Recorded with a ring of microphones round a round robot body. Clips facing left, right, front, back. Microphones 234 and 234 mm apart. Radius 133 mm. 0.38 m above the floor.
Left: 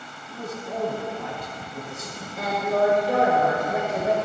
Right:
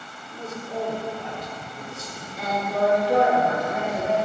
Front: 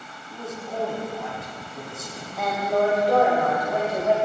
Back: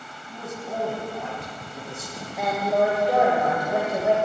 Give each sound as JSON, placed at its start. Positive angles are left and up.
{"t": 0.3, "sound": "a man speaking", "azimuth_deg": 125, "distance_m": 3.0}
{"t": 2.4, "sound": "a woman speaking", "azimuth_deg": 110, "distance_m": 2.0}